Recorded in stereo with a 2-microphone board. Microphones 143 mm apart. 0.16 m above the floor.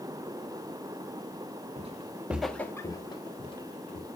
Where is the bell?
I don't hear a bell.